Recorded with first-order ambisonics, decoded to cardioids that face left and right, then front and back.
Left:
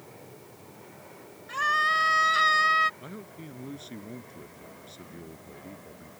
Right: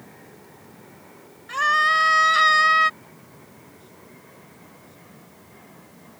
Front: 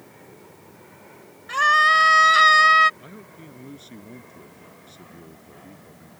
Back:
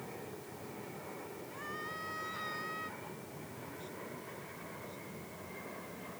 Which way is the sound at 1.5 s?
15° right.